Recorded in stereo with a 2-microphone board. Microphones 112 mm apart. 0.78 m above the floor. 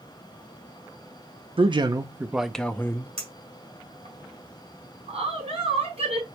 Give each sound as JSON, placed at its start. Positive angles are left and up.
{"t": 1.6, "sound": "a man speaking", "side_deg": -50, "distance_m": 0.6}
{"t": 3.2, "sound": "a clink", "side_deg": -60, "distance_m": 2.0}
{"t": 5.1, "sound": "a woman speaking", "side_deg": -60, "distance_m": 2.5}